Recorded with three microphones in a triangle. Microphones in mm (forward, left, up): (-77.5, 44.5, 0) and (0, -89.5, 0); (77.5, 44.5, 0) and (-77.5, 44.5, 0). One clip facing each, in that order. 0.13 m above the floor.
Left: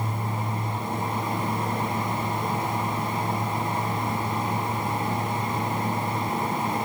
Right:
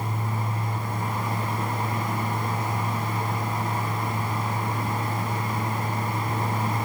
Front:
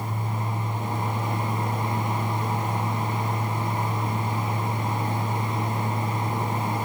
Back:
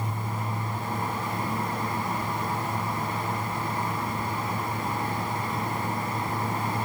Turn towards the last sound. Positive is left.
No sound to turn to.